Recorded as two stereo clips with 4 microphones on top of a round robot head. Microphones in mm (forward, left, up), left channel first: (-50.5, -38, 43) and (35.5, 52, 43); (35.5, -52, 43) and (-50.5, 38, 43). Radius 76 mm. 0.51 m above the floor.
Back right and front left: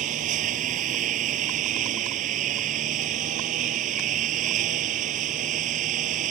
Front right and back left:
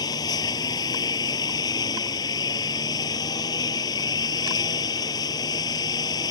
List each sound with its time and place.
0.0 s a lawn mower: 15° left